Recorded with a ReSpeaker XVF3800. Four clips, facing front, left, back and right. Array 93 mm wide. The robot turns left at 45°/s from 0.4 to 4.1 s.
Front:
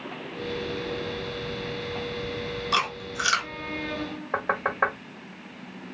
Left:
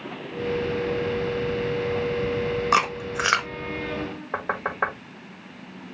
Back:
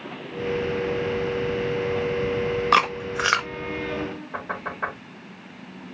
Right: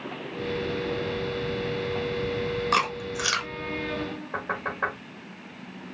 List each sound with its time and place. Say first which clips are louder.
2.7 s chewing: left 4 dB, back 6 dB; 165° left, 0.6 m; by 3.5 s 130° left, 0.6 m
4.3 s knocking: left 4 dB, front 10 dB; 45° left, 1.4 m